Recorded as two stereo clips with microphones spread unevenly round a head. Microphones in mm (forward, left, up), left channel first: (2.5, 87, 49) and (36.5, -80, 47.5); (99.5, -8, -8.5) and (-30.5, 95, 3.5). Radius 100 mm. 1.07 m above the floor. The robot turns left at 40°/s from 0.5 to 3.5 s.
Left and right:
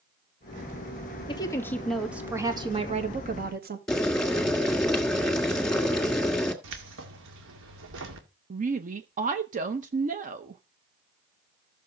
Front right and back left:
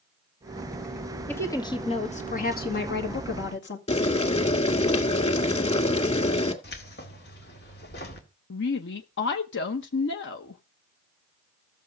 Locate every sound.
1.3 s a woman speaking: 40° left, 2 m; by 3.8 s 50° right, 2 m
3.9 s boiling: 15° left, 2 m
6.6 s keys jangling: 85° right, 2 m
8.5 s a woman speaking: 35° right, 0.8 m